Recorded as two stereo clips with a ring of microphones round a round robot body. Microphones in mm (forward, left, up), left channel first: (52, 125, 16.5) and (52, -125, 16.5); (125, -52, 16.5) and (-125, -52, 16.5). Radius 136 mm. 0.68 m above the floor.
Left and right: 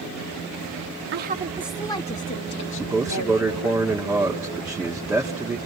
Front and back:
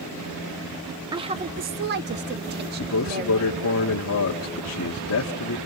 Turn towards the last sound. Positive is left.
turn(degrees=-5)